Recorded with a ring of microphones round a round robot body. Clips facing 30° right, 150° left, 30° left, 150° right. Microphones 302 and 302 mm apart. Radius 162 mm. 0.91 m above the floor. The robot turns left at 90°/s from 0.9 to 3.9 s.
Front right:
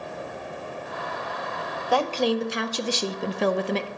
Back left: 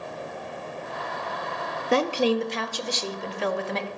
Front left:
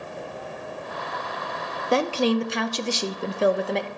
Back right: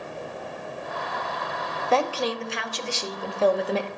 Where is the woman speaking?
100° left, 0.8 m; by 3.9 s 80° right, 0.8 m.